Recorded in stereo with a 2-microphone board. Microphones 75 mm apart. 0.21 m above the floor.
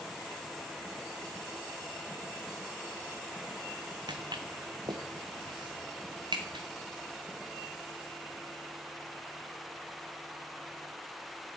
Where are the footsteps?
75° right (ahead or behind), 1.0 m; by 6.6 s 85° right, 2.5 m.